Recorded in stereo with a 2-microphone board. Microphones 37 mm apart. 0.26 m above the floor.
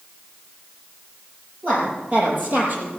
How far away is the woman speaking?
About 6 m.